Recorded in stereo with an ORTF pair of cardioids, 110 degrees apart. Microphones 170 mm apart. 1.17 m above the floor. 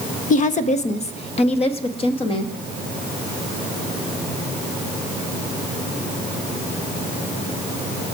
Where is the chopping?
No chopping in this recording.